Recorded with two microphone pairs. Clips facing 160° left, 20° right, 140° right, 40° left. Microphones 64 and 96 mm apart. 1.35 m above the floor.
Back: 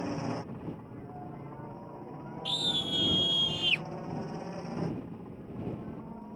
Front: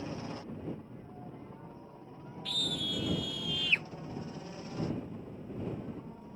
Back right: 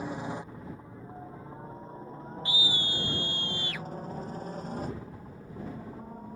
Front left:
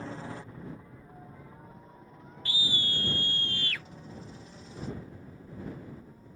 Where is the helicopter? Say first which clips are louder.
Back 6 dB, back right 4 dB; 175° left; by 6.4 s 140° right.